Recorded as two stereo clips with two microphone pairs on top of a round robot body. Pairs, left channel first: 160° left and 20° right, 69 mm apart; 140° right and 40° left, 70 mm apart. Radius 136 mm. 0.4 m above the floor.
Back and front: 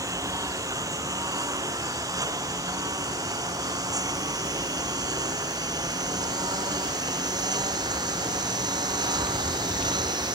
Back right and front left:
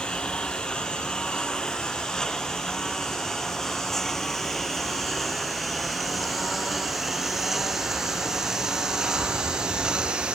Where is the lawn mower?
60° right; by 10.3 s 35° right.